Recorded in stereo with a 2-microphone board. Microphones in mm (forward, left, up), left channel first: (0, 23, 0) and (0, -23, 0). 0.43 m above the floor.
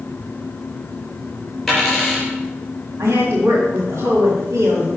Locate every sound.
1.7 s a dropped coin: centre (ahead or behind), 3.5 m
3.0 s a woman speaking: 70° right (ahead or behind), 2 m